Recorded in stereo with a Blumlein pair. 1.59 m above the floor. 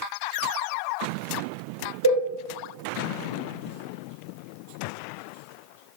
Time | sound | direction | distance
2.0 | a cowbell | 70° right | 0.8 m